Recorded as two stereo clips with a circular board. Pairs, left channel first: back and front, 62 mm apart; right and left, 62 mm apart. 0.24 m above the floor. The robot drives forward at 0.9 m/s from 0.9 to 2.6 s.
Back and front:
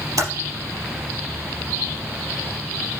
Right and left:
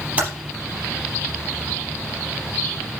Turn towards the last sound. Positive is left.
turn(degrees=35)